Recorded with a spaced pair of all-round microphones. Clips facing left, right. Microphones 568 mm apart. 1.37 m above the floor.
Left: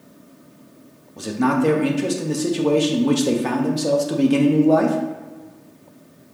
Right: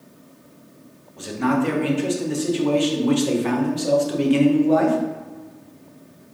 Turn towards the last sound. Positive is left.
turn(degrees=65)  # may be behind; listen again after turning